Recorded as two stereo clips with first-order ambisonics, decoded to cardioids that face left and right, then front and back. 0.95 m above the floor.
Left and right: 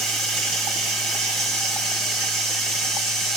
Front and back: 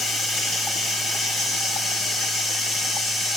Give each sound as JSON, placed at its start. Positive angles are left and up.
{"t": 0.0, "sound": "running water", "azimuth_deg": -60, "distance_m": 1.8}